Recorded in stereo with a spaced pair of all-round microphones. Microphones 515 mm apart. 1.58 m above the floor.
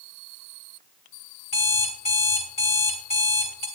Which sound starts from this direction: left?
An alarm clock, at 1.5 s.